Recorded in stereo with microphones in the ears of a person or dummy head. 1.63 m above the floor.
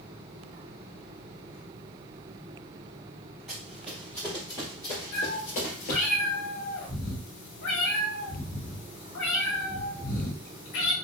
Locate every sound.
3.5 s running footsteps: 10° right (ahead or behind), 2 m; by 6.0 s 40° left (ahead or behind), 2 m
5.1 s a cat meowing: 65° left (ahead or behind), 2 m